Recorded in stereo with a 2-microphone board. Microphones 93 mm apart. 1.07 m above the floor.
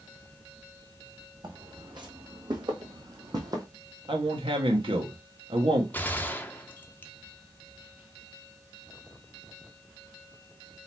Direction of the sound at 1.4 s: 55° right (ahead or behind).